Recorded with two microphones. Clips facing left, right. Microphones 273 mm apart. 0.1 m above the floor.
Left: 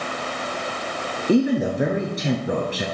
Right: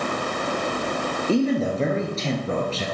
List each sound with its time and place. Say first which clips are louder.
1.3 s a man speaking: left 3 dB; 15° left (ahead or behind), 1.3 m